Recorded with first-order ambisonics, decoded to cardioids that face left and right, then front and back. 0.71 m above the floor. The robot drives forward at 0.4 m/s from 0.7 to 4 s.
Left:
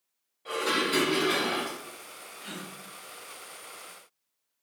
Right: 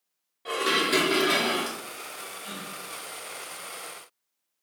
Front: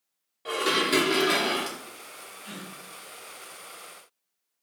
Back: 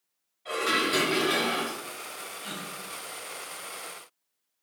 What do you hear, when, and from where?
0.5 s dishes clattering: 25° right, 0.9 m; by 1.8 s 45° right, 0.5 m
2.4 s a gasp: 155° left, 0.9 m; by 2.7 s 160° left, 1.0 m